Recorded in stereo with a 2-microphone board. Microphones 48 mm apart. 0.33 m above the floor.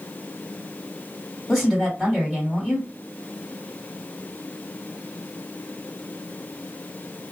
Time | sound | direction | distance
1.5 | a woman speaking | centre (ahead or behind) | 1.6 m